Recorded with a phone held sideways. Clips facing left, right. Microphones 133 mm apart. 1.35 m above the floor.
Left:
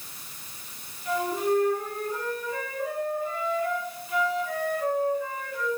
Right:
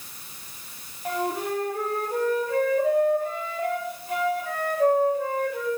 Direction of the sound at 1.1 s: 65° right (ahead or behind).